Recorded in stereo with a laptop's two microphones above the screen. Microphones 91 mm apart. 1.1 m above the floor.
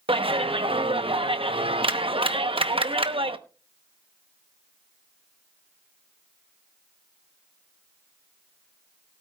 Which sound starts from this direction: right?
A clap, at 0.1 s.